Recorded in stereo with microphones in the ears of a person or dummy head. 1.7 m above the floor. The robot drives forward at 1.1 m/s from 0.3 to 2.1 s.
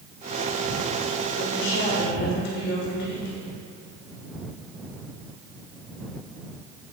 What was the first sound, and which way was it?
A woman speaking, 75° left (ahead or behind).